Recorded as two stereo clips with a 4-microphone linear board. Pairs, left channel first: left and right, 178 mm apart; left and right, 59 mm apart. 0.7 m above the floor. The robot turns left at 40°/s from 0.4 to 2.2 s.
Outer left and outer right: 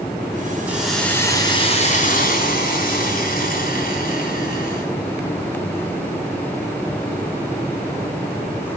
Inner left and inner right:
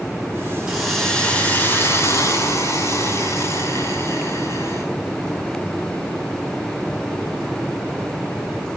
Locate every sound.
0.7 s a hiss: 170° right, 6 m; by 4.9 s 125° left, 6 m